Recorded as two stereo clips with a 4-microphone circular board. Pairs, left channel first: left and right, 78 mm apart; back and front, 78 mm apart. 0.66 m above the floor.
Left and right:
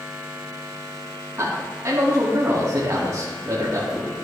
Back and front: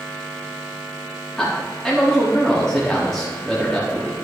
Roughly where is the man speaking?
Right.